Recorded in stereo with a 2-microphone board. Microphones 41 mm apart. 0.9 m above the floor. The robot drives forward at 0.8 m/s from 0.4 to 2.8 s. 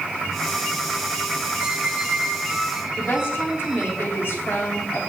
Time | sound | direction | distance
1.6 | a squeak | 30° right (ahead or behind) | 0.9 m
3.0 | a woman speaking | 65° left (ahead or behind) | 3 m